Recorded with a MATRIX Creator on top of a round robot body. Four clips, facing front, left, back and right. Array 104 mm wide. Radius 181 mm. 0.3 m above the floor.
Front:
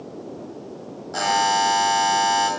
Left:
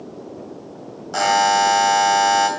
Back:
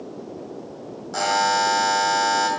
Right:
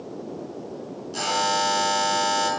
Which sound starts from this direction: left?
A buzzer, at 1.1 s.